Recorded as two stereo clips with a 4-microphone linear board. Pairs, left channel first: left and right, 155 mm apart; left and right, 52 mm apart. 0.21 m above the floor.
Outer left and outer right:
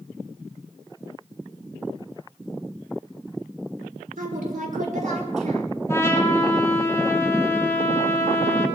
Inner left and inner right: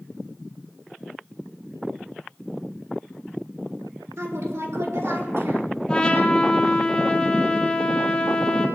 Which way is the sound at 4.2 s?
70° right (ahead or behind).